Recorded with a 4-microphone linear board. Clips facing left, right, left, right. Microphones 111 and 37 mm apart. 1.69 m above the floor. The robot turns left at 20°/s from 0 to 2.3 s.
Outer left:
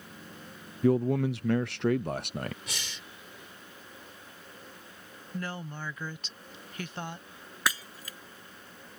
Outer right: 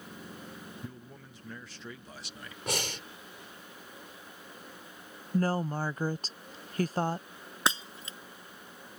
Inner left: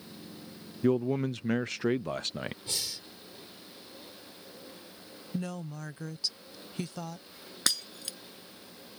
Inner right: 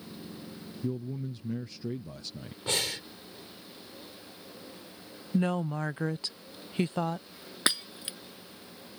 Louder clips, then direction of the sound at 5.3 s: Outer right 9 dB, inner right 8 dB; 40° right (ahead or behind).